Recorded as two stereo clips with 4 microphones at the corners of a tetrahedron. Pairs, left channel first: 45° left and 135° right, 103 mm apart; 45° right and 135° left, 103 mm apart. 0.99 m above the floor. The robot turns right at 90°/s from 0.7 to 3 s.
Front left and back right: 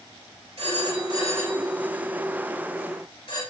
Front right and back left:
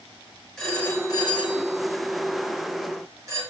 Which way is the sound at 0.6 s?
130° right.